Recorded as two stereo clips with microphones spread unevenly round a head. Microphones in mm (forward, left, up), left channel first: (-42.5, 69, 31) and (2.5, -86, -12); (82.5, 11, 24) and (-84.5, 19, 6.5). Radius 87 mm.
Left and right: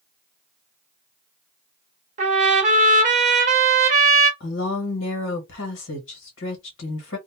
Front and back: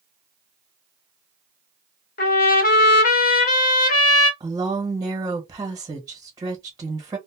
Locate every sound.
2.2 s a trumpet: 20° right, 0.7 m
4.4 s a woman speaking: 110° left, 1.1 m